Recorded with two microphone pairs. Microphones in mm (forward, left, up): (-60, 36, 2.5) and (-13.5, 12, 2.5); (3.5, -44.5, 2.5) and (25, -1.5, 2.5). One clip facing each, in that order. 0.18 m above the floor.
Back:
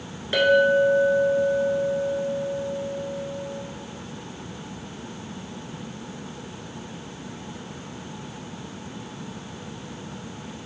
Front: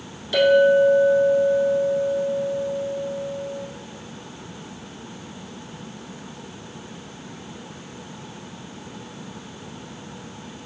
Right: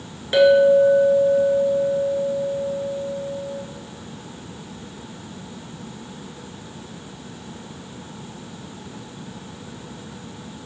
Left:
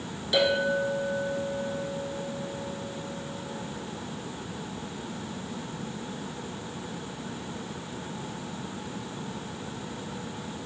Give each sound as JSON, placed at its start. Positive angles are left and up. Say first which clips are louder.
{"t": 0.3, "sound": "a clink", "louder": "front 3 dB, right 12 dB", "azimuth_deg": -160, "distance_m": 1.3}